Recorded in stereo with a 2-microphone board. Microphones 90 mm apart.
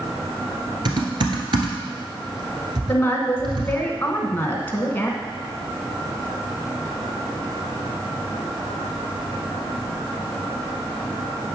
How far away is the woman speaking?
About 1.1 m.